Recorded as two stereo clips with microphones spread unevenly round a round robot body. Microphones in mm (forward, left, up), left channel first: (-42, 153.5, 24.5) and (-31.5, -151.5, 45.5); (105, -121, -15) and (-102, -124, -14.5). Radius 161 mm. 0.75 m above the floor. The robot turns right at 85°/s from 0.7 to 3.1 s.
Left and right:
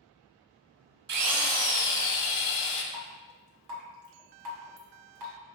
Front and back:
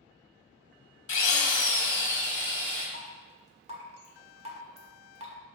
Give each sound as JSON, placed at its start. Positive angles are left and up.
{"t": 1.1, "sound": "a drill", "azimuth_deg": -30, "distance_m": 1.5}
{"t": 2.9, "sound": "dripping", "azimuth_deg": -130, "distance_m": 1.5}